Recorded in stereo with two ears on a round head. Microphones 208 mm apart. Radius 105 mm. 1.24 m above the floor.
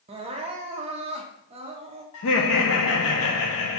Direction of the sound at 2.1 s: 65° left (ahead or behind).